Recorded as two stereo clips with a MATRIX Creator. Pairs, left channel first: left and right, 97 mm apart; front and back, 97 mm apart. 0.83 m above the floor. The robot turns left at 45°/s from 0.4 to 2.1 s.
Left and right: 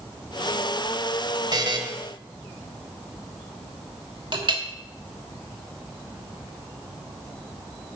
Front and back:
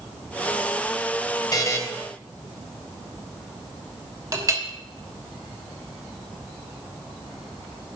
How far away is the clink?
About 1.2 m.